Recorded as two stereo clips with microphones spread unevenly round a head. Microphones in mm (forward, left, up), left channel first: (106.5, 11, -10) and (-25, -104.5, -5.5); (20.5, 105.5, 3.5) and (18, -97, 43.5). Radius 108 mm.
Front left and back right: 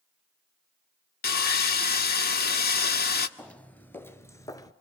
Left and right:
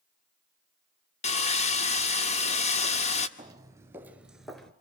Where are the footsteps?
40° right, 2 m; by 4.7 s 10° right, 1.8 m.